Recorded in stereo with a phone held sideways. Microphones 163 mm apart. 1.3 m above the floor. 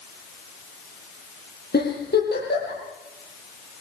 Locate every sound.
1.7 s a giggle: 75° left (ahead or behind), 8.5 m